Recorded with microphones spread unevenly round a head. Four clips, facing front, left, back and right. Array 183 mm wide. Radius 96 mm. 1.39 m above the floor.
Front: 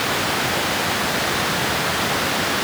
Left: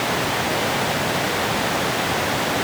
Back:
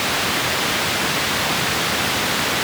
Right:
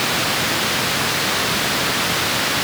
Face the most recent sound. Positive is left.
No sound to turn to.